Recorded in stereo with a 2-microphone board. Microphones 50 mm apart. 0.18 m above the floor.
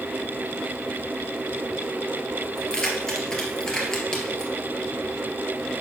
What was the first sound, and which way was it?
Keys jangling, 10° left (ahead or behind).